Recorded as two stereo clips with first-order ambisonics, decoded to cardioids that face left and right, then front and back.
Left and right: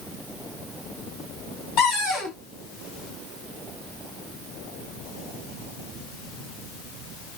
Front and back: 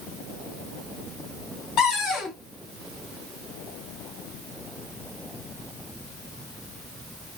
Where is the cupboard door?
45° left, 1.5 m.